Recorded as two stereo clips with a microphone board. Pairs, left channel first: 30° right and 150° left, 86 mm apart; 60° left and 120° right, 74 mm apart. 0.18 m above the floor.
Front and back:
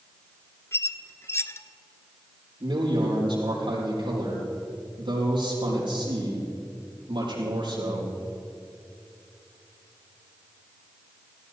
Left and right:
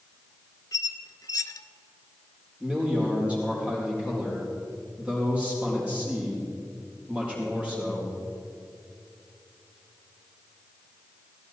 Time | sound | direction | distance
0.7 | a squeak | 30° left | 0.5 m
2.6 | a man speaking | 170° left | 6 m